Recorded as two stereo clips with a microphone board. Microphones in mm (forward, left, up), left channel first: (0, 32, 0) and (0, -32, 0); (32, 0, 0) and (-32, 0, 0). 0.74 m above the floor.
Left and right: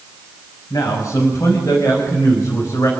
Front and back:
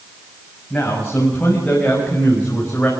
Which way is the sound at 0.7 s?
75° left.